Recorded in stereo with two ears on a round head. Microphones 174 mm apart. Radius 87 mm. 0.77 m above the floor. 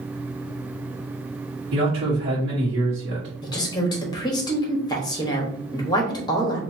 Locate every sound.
1.7 s a man speaking: 60° right (ahead or behind), 1.6 m
3.4 s a woman speaking: 20° left (ahead or behind), 1.1 m